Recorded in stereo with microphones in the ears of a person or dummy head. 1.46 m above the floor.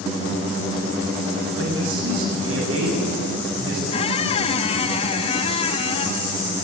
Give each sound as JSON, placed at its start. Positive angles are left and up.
{"t": 1.6, "sound": "a man speaking", "side_deg": -85, "distance_m": 7.5}
{"t": 3.9, "sound": "a squeak", "side_deg": 35, "distance_m": 1.1}